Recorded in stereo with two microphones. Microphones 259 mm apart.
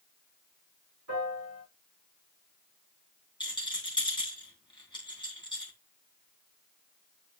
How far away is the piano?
About 4.5 m.